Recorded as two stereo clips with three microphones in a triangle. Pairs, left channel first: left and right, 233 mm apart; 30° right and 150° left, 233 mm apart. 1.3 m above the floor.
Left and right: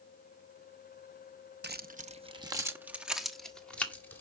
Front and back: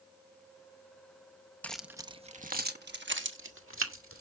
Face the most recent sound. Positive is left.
turn(degrees=170)